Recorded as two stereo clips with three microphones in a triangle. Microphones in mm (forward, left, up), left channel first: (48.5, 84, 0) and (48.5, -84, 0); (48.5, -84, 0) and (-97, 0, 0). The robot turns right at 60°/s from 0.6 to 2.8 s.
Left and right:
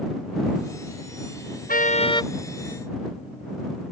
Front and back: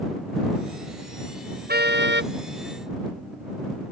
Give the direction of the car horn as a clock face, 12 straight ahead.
8 o'clock.